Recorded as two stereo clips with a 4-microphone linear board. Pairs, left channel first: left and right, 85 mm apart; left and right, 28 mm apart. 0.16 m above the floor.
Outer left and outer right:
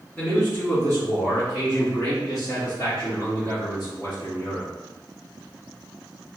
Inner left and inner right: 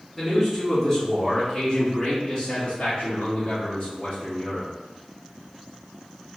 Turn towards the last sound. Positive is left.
turn(degrees=60)  # may be behind; listen again after turning